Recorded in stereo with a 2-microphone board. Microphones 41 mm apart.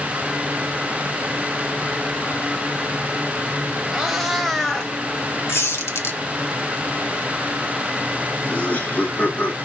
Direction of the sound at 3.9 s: 10° right (ahead or behind).